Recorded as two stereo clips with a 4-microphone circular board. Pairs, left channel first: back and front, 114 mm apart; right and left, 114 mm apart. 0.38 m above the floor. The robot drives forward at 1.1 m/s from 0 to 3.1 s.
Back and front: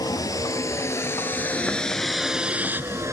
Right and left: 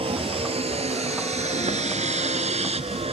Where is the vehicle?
125° left; by 3.1 s 60° left.